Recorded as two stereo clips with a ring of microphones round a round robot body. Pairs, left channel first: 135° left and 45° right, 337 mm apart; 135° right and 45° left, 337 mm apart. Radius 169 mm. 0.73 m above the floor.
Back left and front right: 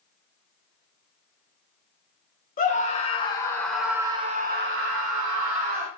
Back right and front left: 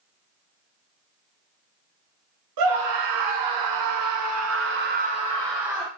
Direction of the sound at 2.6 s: 70° left.